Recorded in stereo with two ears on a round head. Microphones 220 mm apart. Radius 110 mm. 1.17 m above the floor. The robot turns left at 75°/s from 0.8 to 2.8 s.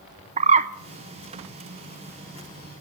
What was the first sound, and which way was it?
A bird, 30° right (ahead or behind).